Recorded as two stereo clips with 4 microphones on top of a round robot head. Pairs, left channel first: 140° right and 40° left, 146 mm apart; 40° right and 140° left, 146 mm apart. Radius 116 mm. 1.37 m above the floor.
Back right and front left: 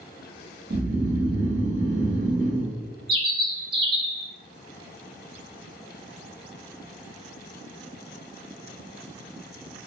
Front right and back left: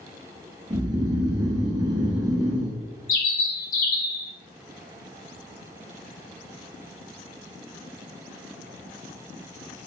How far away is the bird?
About 0.6 m.